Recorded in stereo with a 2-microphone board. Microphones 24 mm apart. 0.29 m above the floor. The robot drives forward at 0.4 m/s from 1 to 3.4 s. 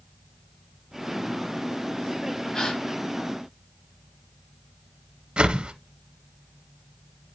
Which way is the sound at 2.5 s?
35° left (ahead or behind).